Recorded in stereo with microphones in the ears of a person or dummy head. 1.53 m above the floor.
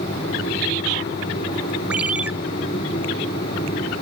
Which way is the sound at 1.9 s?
5° right (ahead or behind).